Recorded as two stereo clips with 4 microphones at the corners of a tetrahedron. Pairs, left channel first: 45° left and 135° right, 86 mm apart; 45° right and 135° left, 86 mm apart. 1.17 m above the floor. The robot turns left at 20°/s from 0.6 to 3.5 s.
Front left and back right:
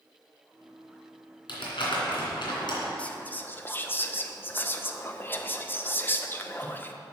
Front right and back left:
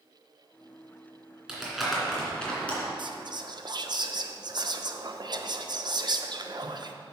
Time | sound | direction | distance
1.5 | crumpling | 50° left | 2.5 m
3.0 | whispering | 120° left | 0.8 m